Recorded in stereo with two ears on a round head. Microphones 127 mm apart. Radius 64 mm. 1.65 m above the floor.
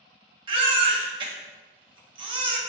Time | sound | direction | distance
0.5 | a baby crying | 35° right (ahead or behind) | 0.9 m